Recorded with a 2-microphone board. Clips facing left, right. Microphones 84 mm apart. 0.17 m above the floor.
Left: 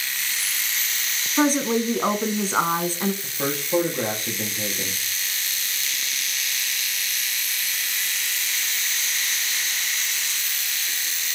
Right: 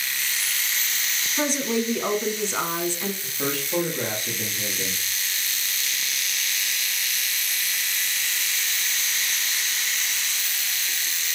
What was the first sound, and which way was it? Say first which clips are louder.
A woman speaking: left 5 dB; 40° left (ahead or behind).